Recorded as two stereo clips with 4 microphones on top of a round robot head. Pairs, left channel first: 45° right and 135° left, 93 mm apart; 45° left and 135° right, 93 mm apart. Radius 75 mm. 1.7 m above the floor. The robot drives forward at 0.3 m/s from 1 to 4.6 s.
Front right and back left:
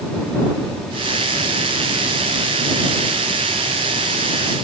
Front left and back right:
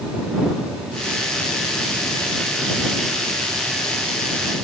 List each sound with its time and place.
Only background noise.